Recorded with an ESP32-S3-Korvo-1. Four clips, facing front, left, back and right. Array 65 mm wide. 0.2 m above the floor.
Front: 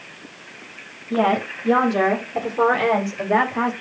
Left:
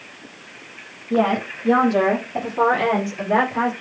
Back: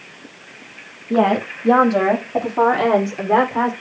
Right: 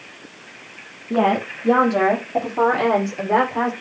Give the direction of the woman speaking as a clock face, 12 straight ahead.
5 o'clock.